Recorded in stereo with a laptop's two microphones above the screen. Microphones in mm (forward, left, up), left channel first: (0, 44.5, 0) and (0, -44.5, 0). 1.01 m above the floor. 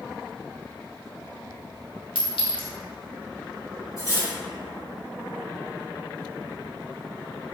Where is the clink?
65° left (ahead or behind), 0.6 m.